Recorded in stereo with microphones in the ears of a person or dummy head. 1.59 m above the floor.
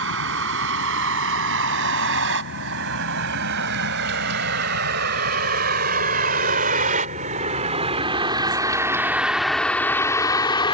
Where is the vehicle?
75° right (ahead or behind); by 10.8 s 30° left (ahead or behind).